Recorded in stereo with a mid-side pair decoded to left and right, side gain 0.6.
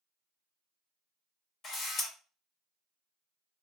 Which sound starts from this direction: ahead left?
A camera shutter, at 1.6 s.